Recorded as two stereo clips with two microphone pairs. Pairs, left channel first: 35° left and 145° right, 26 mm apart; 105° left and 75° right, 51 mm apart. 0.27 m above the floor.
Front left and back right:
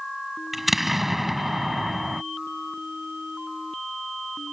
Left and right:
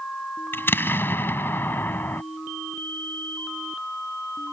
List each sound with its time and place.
0.5 s an explosion: 135° left